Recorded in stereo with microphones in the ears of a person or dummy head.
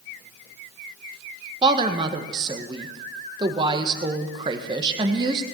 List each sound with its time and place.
1.6 s a woman speaking: 25° right (ahead or behind), 1.4 m